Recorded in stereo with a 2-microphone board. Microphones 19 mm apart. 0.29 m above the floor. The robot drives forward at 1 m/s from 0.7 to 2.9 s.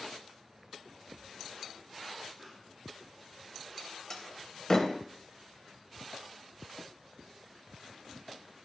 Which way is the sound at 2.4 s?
15° left (ahead or behind).